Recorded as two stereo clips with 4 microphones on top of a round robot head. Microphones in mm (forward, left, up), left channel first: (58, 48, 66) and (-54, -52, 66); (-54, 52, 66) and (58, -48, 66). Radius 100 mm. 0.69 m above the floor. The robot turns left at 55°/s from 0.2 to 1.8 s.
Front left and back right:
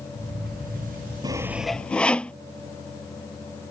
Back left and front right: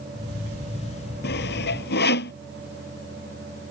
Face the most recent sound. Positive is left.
turn(degrees=125)